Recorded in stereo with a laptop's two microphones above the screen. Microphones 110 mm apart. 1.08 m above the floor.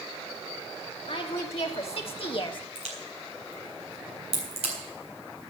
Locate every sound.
1.1 s a woman speaking: 65° left (ahead or behind), 2 m; by 2.6 s 45° left (ahead or behind), 0.9 m
2.8 s a crack: 70° right (ahead or behind), 4 m